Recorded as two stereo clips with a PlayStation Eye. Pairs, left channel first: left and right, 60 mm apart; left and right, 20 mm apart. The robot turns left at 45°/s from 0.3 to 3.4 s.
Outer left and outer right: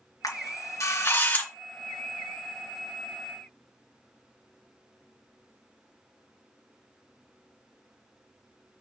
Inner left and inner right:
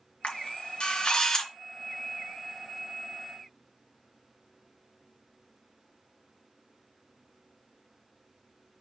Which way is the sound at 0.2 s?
65° left (ahead or behind).